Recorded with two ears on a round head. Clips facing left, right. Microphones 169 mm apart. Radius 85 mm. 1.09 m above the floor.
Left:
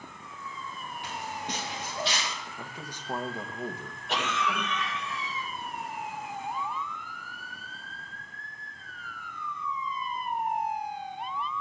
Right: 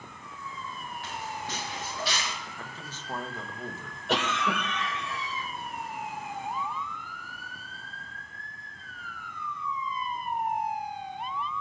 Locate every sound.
1.0 s footsteps: 15° left (ahead or behind), 8 m; by 2.3 s 25° left (ahead or behind), 7.5 m
2.6 s a man speaking: 15° left (ahead or behind), 1.4 m
4.1 s a cough: 55° right (ahead or behind), 5 m